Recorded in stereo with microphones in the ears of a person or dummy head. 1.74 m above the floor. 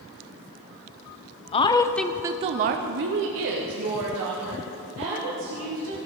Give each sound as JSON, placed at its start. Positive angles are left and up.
{"t": 1.5, "sound": "a woman speaking", "side_deg": 30, "distance_m": 0.8}